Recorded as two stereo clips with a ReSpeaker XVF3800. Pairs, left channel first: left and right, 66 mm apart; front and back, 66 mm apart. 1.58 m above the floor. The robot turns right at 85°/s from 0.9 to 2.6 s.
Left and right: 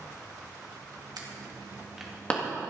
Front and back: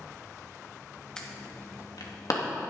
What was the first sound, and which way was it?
An alarm, 80° right.